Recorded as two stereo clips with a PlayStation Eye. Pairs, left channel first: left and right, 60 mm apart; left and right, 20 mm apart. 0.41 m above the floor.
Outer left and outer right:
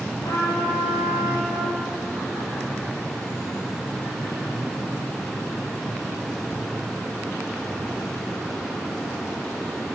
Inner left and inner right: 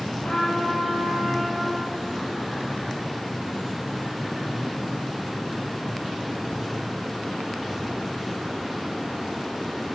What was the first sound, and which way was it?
A trumpet, 85° left.